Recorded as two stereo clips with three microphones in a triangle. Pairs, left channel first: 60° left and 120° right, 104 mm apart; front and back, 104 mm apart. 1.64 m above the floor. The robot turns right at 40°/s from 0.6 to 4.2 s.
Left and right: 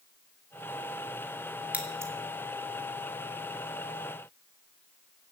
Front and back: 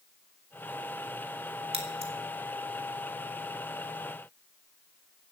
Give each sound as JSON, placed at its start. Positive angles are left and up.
{"t": 1.7, "sound": "scissors", "azimuth_deg": 165, "distance_m": 2.5}